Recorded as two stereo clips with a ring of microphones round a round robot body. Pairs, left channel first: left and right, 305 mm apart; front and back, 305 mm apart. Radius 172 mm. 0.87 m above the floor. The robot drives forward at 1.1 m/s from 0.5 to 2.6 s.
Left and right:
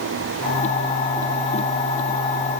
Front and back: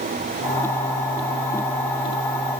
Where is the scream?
I don't hear a scream.